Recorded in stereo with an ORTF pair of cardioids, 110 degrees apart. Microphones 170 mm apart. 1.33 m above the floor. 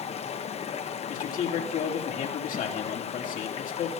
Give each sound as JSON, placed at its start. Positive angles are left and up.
{"t": 0.0, "sound": "running water", "azimuth_deg": 35, "distance_m": 0.9}
{"t": 1.1, "sound": "a man speaking", "azimuth_deg": 50, "distance_m": 3.0}